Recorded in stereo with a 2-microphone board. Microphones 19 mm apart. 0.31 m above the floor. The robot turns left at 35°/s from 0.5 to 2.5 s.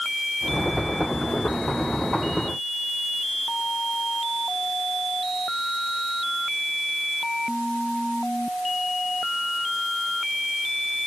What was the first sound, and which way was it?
Only background noise.